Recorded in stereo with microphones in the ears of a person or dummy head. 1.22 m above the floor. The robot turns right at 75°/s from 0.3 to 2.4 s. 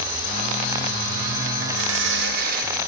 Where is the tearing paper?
115° right, 6.5 m; by 2.8 s 60° right, 6.5 m.